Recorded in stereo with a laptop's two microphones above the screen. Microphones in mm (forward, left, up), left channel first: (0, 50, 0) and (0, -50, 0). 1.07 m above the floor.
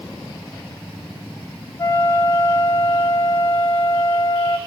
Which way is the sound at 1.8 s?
25° left (ahead or behind).